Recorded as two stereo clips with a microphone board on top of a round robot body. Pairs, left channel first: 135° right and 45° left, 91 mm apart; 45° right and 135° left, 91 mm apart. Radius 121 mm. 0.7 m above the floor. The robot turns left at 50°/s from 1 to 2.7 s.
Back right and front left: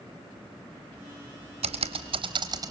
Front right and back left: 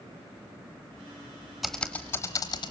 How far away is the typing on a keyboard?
About 0.7 m.